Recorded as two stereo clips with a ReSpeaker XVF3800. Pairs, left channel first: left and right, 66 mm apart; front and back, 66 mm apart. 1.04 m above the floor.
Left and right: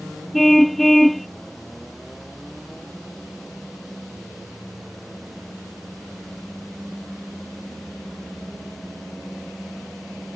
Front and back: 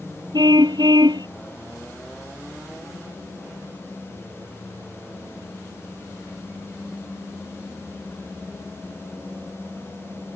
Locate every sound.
0.3 s a car horn: straight behind